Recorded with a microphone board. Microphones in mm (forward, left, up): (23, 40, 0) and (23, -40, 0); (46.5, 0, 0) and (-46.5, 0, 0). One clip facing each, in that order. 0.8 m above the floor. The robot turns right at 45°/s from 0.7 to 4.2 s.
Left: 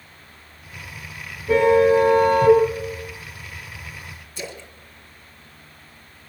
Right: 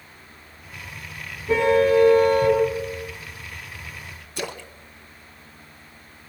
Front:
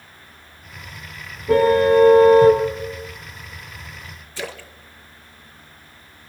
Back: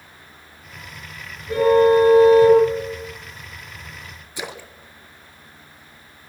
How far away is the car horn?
About 6.5 m.